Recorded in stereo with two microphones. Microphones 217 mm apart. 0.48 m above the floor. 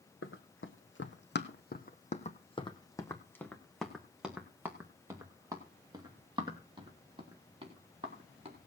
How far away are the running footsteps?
About 1.4 m.